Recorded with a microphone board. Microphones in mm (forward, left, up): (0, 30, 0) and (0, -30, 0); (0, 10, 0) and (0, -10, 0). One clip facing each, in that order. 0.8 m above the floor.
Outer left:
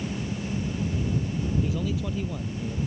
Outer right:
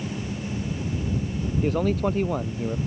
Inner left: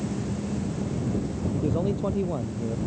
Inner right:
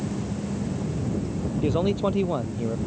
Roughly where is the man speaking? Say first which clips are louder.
Outer right 6 dB, inner right 4 dB; right.